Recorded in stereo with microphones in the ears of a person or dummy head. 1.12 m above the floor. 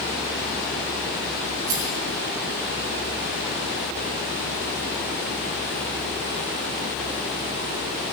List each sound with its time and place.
1.7 s a rattle: 80° right, 3.5 m